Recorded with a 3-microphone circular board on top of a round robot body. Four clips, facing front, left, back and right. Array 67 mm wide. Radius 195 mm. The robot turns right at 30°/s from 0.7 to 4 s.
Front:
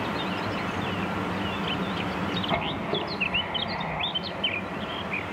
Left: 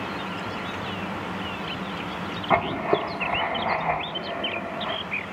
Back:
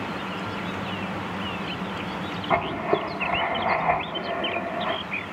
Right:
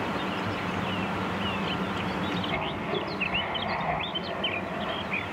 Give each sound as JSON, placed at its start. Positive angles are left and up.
{"t": 2.5, "sound": "writing", "azimuth_deg": 110, "distance_m": 0.6}